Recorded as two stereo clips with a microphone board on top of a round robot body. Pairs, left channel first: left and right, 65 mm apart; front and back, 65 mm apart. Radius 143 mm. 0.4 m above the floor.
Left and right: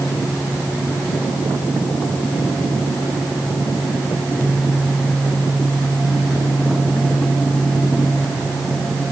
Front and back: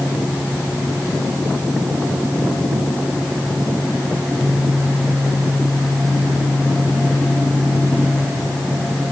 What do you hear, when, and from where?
Only background noise.